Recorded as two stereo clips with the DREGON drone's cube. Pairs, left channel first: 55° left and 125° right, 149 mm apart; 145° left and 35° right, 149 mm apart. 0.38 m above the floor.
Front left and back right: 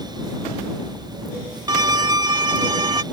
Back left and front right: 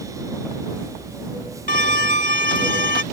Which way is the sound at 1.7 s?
175° left.